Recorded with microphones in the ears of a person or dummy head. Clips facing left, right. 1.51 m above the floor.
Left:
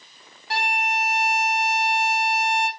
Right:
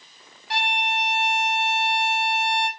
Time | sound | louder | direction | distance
0.5 | a violin | left 1 dB | 45° left (ahead or behind) | 1.9 m